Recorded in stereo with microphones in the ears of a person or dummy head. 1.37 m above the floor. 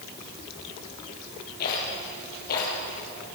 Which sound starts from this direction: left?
A rattle, at 1.6 s.